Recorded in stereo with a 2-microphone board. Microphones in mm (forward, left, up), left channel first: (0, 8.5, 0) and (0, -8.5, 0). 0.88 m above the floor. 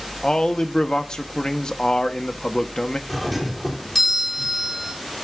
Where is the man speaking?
45° left (ahead or behind), 1.1 m.